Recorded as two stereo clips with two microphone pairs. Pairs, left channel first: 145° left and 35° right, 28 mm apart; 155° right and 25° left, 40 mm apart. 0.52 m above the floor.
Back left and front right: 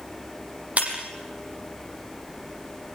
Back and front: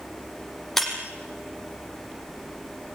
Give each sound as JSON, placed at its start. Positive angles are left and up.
{"t": 0.8, "sound": "breaking glass", "azimuth_deg": -70, "distance_m": 5.0}